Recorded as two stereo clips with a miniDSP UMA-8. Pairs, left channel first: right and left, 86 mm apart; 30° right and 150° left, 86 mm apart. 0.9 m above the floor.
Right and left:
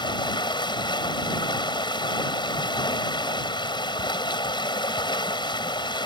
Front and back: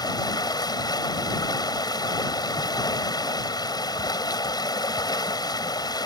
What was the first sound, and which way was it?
Running water, 70° right.